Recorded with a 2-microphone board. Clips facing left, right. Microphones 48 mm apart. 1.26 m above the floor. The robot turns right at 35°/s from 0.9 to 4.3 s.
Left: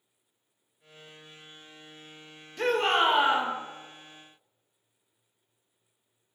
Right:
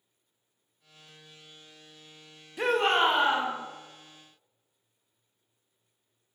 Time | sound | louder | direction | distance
2.6 | a shout | even | 10° right | 0.6 m